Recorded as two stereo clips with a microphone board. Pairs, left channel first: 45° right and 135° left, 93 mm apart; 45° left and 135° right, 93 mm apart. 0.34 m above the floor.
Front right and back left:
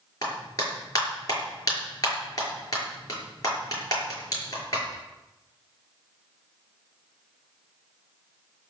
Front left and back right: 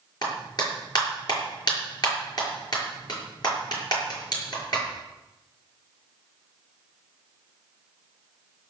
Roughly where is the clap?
Ahead.